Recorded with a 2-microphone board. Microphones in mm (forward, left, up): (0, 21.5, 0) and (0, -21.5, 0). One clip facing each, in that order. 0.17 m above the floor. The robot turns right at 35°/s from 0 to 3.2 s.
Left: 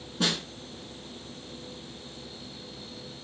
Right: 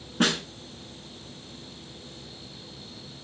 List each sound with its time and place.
0.2 s a snare drum: 55° right (ahead or behind), 0.8 m